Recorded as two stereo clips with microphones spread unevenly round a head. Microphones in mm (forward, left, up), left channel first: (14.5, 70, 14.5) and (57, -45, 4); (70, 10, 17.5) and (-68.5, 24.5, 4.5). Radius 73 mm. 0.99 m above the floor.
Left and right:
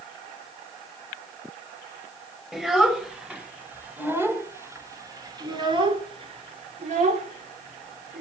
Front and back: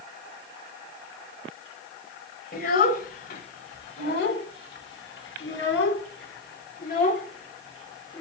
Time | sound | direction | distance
2.5 | a child speaking | 15° left | 4 m